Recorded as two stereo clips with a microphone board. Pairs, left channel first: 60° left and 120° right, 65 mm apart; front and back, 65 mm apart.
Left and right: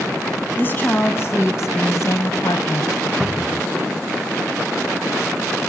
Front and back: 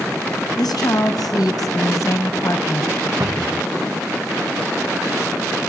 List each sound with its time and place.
0.6 s a woman speaking: straight ahead, 3.5 m; by 3.1 s 50° left, 3 m
3.2 s a cupboard door: 150° left, 1.4 m